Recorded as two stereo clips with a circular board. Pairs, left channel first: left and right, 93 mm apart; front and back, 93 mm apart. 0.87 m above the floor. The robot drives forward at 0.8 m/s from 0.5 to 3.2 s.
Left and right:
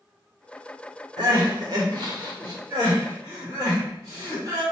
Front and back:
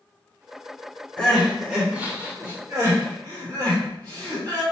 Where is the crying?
75° right, 1.4 m; by 4.6 s 140° right, 1.9 m.